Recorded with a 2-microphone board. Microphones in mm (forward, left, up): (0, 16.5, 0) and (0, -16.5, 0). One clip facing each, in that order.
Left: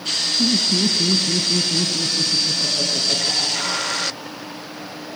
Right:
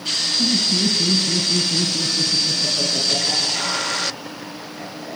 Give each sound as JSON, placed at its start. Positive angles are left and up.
{"t": 0.4, "sound": "laughter", "side_deg": 30, "distance_m": 2.5}